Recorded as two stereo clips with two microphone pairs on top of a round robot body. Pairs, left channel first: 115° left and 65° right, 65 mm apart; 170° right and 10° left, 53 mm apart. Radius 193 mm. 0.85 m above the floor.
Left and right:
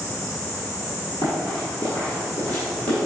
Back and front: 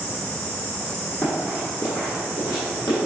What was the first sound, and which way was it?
Running footsteps, 100° left.